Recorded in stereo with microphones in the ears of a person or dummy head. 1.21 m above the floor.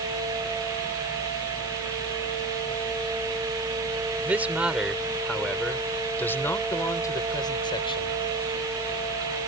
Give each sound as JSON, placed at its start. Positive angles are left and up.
{"t": 4.2, "sound": "a man speaking", "side_deg": -10}